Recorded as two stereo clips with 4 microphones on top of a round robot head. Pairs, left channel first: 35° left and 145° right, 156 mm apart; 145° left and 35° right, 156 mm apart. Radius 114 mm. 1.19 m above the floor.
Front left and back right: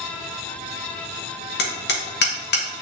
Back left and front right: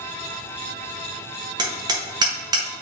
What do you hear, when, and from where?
1.6 s hammering: 30° left, 1.4 m